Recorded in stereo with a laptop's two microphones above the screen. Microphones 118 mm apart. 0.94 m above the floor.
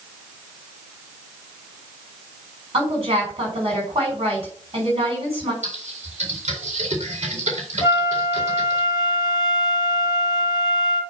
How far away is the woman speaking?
About 4 m.